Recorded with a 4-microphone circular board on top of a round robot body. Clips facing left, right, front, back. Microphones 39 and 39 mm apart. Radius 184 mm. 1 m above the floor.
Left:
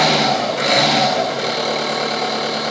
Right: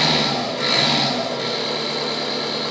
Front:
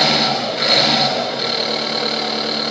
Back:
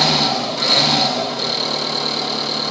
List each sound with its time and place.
0.0 s an engine running: 70° left, 5 m